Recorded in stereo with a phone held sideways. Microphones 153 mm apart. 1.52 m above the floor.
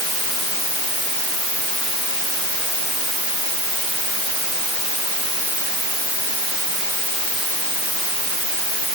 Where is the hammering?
I don't hear hammering.